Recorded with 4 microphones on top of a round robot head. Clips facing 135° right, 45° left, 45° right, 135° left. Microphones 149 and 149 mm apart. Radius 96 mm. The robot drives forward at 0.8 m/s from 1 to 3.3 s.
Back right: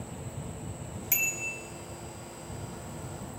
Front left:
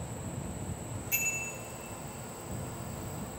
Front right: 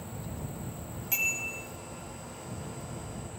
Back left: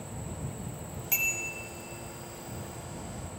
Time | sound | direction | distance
1.1 | a bicycle bell | 135° right | 2.5 m